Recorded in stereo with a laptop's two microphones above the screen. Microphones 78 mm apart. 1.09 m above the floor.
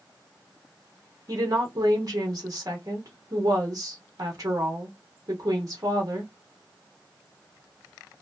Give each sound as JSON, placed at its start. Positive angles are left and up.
{"t": 1.3, "sound": "a woman speaking", "side_deg": -45, "distance_m": 0.9}